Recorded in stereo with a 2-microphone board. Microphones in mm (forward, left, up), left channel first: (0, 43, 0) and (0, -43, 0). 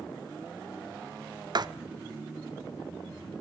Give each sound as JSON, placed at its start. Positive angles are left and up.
{"t": 1.6, "sound": "writing", "side_deg": -50, "distance_m": 0.7}